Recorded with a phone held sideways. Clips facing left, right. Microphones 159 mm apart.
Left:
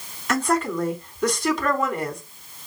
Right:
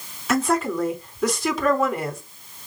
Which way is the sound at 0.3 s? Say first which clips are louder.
Right 1 dB; 5° right (ahead or behind).